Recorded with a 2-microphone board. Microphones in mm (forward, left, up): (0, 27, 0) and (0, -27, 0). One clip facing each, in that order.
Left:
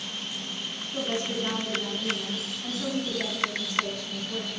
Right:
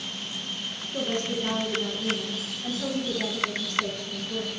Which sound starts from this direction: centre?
A woman speaking, at 0.9 s.